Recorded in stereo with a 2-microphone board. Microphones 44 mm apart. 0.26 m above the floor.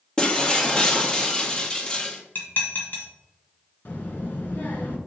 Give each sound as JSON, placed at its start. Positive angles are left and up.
{"t": 0.2, "sound": "breaking glass", "side_deg": 15, "distance_m": 1.2}
{"t": 2.4, "sound": "dishes clattering", "side_deg": 45, "distance_m": 1.6}
{"t": 3.9, "sound": "a child speaking", "side_deg": 45, "distance_m": 1.7}